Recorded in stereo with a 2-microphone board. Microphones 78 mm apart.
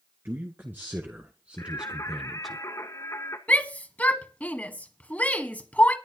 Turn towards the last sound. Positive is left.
turn(degrees=20)  # may be behind; listen again after turning